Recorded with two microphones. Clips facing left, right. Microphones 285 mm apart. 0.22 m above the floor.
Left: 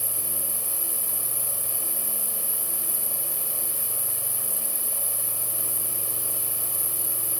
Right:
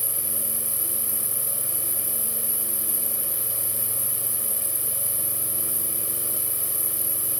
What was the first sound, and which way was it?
An insect, 70° left (ahead or behind).